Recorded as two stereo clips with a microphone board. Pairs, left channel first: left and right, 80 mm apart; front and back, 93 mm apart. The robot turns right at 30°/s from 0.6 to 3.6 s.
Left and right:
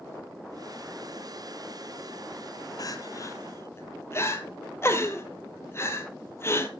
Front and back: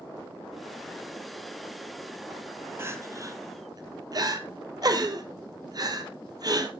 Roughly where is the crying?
Behind left.